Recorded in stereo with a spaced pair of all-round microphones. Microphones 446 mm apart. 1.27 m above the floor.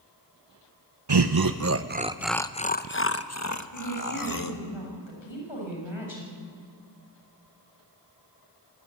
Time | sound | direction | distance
1.1 | laughter | 65° right (ahead or behind) | 0.8 m
3.7 | a woman speaking | 90° left | 7 m